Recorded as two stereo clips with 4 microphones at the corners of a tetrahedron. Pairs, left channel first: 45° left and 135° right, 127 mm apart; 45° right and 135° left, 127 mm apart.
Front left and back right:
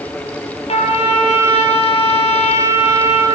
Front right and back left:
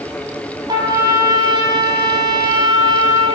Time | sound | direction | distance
0.7 | a trumpet | 80° left | 2.0 m